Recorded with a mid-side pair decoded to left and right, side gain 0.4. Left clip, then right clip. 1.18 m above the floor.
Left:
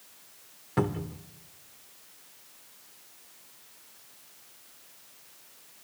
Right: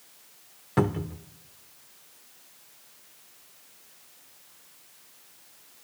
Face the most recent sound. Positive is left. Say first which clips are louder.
# right 3 dB
turn(degrees=-35)